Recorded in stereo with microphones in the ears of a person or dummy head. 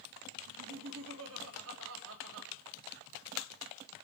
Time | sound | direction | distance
0.5 | laughter | 75° right (ahead or behind) | 2.5 m